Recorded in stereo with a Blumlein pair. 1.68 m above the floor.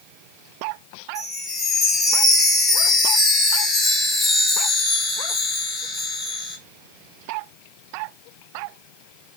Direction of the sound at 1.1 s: 15° left.